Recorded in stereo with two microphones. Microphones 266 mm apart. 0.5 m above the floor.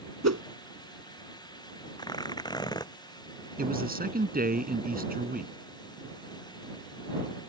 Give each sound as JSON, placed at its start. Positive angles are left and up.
{"t": 0.2, "sound": "a whoosh", "side_deg": -75}
{"t": 2.0, "sound": "tearing paper", "side_deg": 15}
{"t": 3.6, "sound": "a man speaking", "side_deg": -35}